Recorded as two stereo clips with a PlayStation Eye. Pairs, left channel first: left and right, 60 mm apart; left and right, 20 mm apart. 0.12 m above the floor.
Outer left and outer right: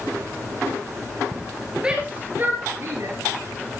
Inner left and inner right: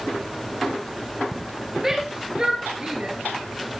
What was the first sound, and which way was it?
A shout, 15° right (ahead or behind).